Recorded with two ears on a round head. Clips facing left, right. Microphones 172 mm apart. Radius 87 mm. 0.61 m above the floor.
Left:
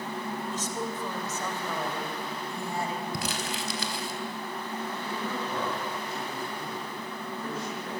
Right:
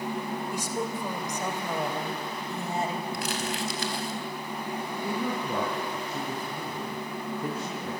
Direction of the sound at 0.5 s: 10° right (ahead or behind).